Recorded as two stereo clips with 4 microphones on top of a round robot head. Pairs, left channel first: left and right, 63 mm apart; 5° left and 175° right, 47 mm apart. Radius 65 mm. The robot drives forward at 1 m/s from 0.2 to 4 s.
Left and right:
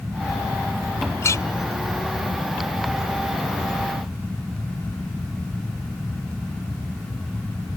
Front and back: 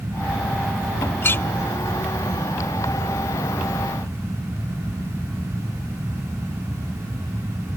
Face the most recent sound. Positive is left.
turn(degrees=90)